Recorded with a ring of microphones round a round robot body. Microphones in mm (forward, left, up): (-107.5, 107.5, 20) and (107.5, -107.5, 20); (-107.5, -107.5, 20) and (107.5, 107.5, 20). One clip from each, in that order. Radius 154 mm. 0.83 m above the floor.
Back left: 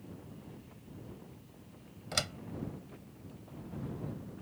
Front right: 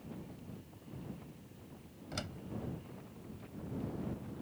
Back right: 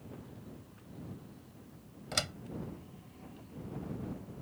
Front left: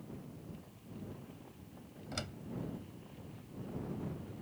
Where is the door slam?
175° left.